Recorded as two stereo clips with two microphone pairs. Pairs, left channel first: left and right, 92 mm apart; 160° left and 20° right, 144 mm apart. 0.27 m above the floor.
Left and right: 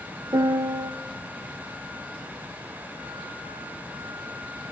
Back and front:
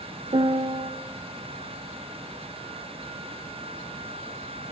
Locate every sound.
0.3 s a piano: 60° right, 0.5 m